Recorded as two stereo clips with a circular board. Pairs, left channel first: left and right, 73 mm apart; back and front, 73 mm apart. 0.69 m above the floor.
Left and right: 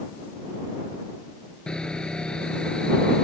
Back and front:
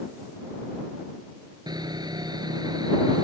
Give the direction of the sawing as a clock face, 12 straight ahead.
12 o'clock.